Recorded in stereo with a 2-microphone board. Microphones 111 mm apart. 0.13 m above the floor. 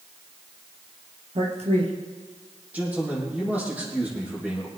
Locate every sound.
1.4 s a man speaking: 60° right (ahead or behind), 3 m
2.7 s a man speaking: 10° right (ahead or behind), 6 m